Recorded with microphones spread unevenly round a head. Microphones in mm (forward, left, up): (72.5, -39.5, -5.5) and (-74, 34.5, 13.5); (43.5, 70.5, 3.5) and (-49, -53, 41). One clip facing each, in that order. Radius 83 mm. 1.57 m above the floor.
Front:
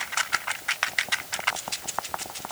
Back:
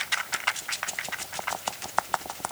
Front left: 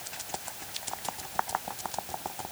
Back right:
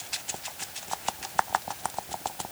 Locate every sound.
Only background noise.